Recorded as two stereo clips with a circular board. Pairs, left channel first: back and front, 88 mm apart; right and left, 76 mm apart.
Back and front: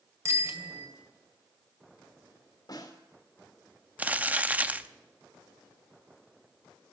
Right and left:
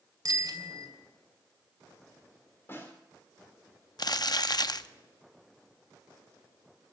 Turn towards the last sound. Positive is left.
turn(degrees=-70)